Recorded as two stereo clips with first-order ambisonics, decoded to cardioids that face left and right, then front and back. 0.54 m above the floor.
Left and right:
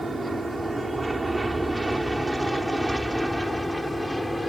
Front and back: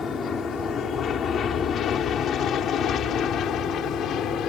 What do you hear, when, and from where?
0.0 s an aircraft: 25° right; by 4.5 s straight ahead